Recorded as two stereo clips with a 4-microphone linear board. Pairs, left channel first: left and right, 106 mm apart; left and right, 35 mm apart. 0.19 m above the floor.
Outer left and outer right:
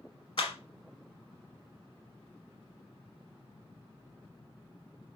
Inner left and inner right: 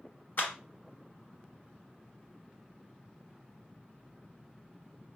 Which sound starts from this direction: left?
A clap, at 0.4 s.